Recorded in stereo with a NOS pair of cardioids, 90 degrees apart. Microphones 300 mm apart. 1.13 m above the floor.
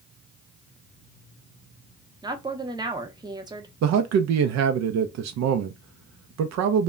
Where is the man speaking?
65° right, 0.6 m.